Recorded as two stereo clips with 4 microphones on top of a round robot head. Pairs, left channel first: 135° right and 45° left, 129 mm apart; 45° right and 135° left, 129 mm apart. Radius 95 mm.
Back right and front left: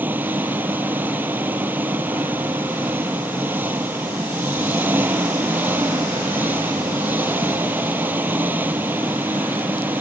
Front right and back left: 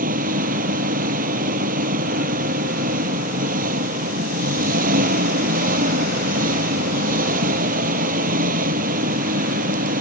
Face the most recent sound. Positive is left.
turn(degrees=120)